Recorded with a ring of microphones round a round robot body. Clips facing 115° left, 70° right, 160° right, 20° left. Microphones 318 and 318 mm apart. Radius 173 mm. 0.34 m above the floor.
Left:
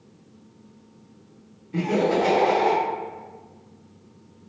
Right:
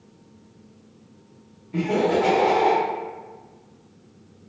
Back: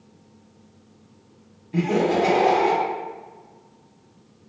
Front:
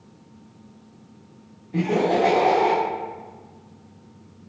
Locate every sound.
1.7 s laughter: 165° right, 0.8 m